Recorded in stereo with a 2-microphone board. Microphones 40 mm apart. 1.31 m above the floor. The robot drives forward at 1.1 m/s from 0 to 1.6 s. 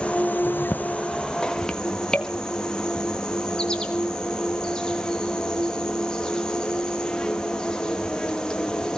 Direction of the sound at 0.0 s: 30° left (ahead or behind).